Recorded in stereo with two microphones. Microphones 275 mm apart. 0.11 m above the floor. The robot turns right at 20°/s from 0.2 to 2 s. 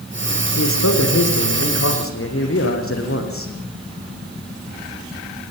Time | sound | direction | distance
0.6 | a man speaking | 75° left (ahead or behind) | 5 m